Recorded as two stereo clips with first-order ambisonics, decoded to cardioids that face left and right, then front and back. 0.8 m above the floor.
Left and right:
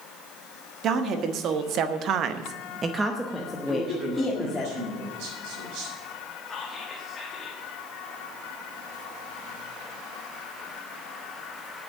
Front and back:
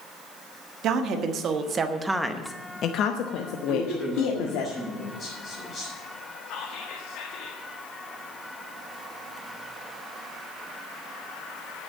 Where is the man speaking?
70° right, 7 m.